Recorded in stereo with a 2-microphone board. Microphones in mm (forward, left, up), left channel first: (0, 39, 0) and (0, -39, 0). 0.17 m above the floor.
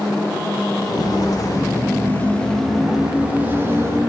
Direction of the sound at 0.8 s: 55° left (ahead or behind).